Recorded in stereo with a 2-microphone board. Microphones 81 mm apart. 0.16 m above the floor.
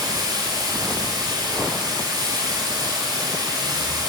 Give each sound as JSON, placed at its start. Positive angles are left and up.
{"t": 0.0, "sound": "running water", "side_deg": -60, "distance_m": 1.8}